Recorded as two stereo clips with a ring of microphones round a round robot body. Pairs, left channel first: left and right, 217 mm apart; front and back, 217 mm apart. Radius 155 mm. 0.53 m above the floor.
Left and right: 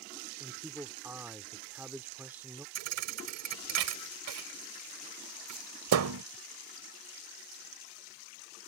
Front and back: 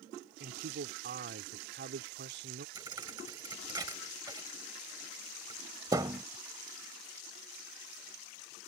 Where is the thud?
100° right.